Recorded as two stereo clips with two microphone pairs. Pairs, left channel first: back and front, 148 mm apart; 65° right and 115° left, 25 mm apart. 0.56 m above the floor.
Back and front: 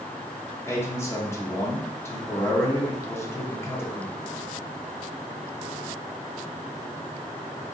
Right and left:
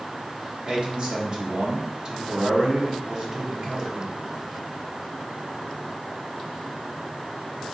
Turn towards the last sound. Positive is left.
turn(degrees=120)